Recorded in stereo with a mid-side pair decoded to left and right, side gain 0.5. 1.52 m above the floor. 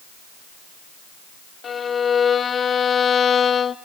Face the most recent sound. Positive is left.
turn(degrees=40)